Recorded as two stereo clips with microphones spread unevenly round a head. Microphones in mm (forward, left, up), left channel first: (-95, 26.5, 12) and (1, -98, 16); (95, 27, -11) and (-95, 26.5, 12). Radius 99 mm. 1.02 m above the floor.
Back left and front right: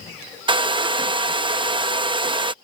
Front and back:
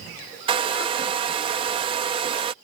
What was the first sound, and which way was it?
A hair dryer, 115° right.